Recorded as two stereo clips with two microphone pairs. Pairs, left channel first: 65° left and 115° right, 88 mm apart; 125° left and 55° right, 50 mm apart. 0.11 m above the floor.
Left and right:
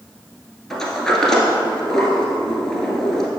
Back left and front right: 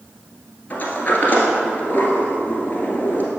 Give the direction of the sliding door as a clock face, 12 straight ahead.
7 o'clock.